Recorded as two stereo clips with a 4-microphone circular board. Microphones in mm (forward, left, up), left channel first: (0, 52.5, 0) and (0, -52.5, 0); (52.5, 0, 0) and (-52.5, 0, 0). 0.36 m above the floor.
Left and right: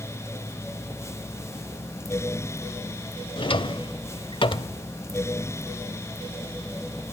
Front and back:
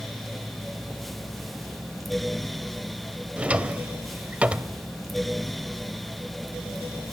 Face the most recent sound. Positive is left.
turn(degrees=105)